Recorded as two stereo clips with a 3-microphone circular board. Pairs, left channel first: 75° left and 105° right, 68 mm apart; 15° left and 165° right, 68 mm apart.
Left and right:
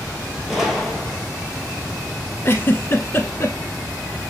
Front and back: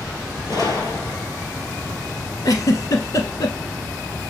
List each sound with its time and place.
0.5 s a gunshot: 15° right, 2.0 m
2.5 s a giggle: 25° left, 1.0 m